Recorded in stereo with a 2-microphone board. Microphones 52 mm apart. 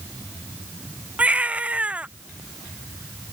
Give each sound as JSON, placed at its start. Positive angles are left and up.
{"t": 1.2, "sound": "a baby crying", "side_deg": -25}